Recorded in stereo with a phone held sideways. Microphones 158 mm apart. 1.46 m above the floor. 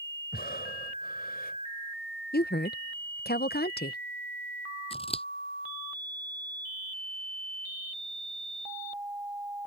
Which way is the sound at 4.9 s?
35° left (ahead or behind).